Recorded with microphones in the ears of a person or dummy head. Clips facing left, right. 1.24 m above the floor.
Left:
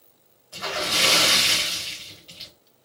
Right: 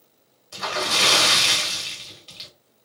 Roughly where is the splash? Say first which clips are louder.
Right 2 dB; right.